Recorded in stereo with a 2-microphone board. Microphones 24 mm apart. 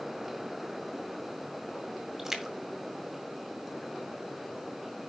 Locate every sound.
2.2 s a splash: 20° right (ahead or behind), 1.9 m